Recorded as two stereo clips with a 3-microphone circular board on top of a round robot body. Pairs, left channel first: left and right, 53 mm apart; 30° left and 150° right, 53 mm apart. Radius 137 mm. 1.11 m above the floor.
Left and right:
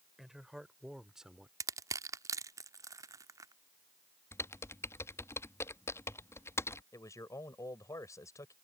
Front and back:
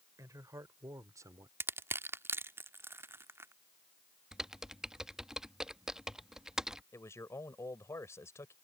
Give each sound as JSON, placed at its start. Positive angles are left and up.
{"t": 0.2, "sound": "a man speaking", "azimuth_deg": -170}
{"t": 1.6, "sound": "crushing", "azimuth_deg": -105}
{"t": 4.3, "sound": "typing on a keyboard", "azimuth_deg": 130}
{"t": 6.9, "sound": "a man speaking", "azimuth_deg": 65}